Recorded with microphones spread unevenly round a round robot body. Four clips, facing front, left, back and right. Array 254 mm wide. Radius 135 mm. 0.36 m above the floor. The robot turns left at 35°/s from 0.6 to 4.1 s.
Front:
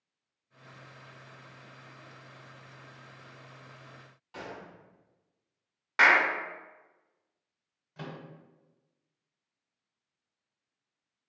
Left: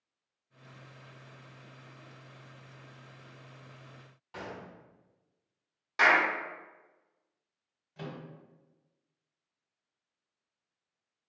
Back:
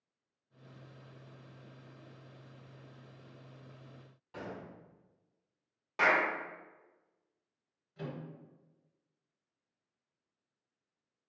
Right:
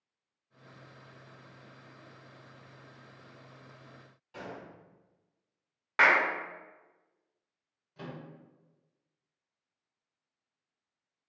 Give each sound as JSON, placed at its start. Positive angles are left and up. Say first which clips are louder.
{"t": 4.3, "sound": "a gunshot", "louder": "left 1 dB, front 1 dB", "azimuth_deg": 110, "distance_m": 1.1}
{"t": 6.0, "sound": "a clap", "louder": "even, front 5 dB", "azimuth_deg": -50, "distance_m": 0.6}
{"t": 8.0, "sound": "a microwave", "louder": "left 1 dB, even", "azimuth_deg": 10, "distance_m": 0.8}